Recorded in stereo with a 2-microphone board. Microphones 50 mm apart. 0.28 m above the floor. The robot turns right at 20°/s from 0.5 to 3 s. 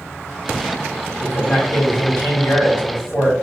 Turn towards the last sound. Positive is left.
turn(degrees=100)